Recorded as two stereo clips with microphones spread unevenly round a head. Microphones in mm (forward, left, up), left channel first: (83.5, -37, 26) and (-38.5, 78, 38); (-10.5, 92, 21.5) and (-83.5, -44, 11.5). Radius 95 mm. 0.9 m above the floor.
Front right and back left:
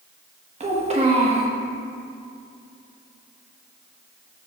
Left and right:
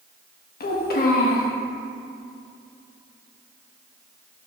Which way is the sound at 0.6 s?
85° left.